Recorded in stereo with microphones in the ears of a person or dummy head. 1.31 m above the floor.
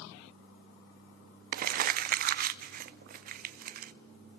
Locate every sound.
1.5 s crumpling: 50° right (ahead or behind), 0.5 m